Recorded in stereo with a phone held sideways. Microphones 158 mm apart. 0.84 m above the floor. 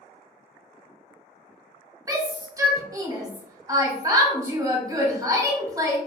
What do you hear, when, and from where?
2.1 s a shout: 20° right (ahead or behind), 0.7 m